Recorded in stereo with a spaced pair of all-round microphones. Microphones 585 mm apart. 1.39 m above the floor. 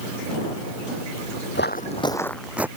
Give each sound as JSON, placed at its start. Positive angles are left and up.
{"t": 1.6, "sound": "footsteps", "side_deg": 20}